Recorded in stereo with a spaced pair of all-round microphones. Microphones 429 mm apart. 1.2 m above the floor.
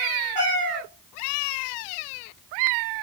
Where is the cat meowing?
15° left (ahead or behind), 2 m.